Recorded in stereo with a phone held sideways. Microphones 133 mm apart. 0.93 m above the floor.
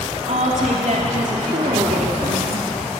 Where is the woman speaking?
65° right (ahead or behind), 2.5 m.